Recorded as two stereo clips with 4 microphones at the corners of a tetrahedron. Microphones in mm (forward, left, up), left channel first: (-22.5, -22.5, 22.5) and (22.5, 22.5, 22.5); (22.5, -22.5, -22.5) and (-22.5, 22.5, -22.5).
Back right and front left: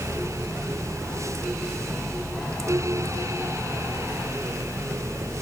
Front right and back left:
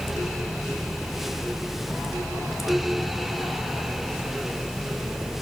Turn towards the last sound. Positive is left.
No sound to turn to.